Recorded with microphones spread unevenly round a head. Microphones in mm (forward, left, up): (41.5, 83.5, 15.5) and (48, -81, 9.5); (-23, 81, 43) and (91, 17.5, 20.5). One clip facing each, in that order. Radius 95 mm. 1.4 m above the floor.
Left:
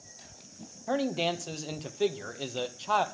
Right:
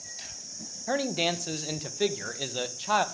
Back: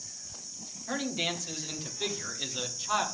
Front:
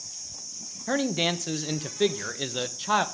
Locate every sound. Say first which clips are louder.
0.9 s a man speaking: even, front 7 dB; 5° right, 1.2 m